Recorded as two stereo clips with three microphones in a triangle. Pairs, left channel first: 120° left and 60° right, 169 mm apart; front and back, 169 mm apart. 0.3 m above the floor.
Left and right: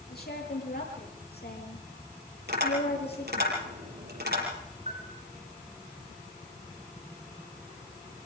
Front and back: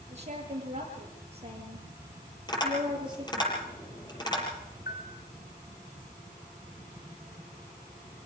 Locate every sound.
0.1 s a woman speaking: 135° left, 6.5 m; by 3.5 s 115° left, 7 m
2.5 s tapping: 65° right, 7.5 m
4.9 s a bell: 10° right, 4 m